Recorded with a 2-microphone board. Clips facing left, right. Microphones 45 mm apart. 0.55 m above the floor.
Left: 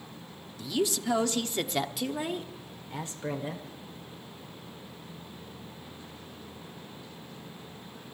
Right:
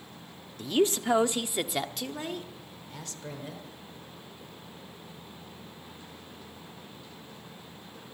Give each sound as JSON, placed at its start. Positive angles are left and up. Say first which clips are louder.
{"t": 0.6, "sound": "a woman speaking", "louder": "right 4 dB", "side_deg": -45, "distance_m": 0.8}